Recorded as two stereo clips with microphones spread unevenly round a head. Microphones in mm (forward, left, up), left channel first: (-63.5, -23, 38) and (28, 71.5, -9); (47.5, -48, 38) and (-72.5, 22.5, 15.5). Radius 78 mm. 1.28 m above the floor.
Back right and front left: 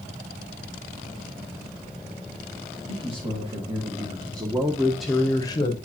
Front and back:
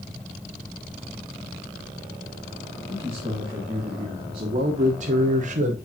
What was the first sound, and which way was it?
A man speaking, 80° left.